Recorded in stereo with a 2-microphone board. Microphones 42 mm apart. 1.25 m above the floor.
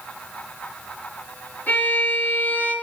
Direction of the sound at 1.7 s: 40° left (ahead or behind).